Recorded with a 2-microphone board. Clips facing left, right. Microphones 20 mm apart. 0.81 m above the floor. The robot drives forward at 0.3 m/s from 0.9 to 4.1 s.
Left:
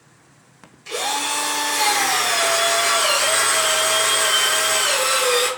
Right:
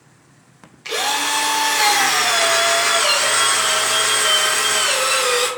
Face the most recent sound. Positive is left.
turn(degrees=-25)  # may be behind; listen again after turning